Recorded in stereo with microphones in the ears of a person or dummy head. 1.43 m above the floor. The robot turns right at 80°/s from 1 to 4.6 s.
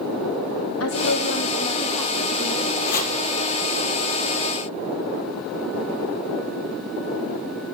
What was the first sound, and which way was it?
A woman speaking, 95° left.